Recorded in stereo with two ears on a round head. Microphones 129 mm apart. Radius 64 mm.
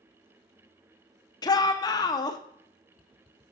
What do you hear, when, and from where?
1.4 s a shout: 25° left (ahead or behind), 0.6 m